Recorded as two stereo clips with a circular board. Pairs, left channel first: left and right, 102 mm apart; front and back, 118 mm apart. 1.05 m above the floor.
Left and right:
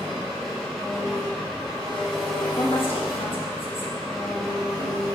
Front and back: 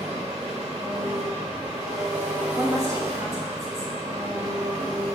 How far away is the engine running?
About 4 m.